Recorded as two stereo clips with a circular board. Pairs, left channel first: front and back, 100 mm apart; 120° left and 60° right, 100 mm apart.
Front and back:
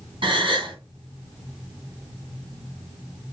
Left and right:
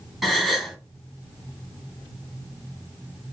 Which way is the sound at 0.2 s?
150° right.